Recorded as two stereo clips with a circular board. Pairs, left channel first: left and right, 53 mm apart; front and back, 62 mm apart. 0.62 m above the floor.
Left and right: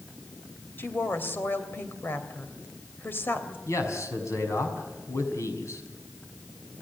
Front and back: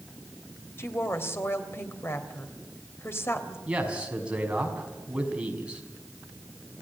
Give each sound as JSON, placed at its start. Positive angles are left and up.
{"t": 0.8, "sound": "a woman speaking", "azimuth_deg": 45, "distance_m": 3.0}
{"t": 3.7, "sound": "a man speaking", "azimuth_deg": 110, "distance_m": 5.0}